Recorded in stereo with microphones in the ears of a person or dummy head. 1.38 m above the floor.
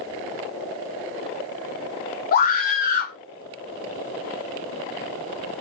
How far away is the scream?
About 1.2 m.